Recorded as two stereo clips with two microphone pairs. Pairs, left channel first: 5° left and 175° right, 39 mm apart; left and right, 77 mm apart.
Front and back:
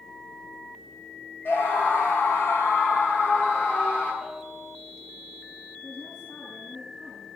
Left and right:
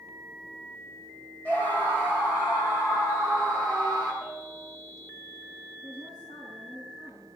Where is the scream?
25° left, 3.5 m; by 4.1 s 40° left, 7 m.